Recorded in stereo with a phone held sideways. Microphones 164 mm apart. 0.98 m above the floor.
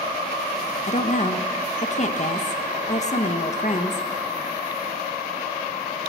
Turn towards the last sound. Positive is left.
turn(degrees=45)  # may be behind; listen again after turning